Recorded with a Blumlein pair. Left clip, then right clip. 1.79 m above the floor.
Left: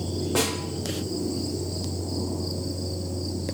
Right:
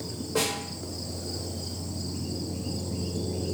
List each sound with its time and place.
0.3 s a snare drum: 50° left, 1.0 m